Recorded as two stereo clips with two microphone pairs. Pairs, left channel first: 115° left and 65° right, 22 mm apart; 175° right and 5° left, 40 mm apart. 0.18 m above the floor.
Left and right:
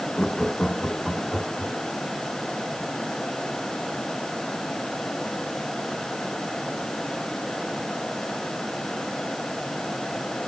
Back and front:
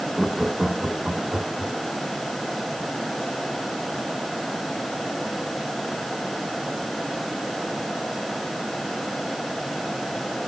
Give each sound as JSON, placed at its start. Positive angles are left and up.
{"t": 0.2, "sound": "laughter", "azimuth_deg": 75, "distance_m": 1.6}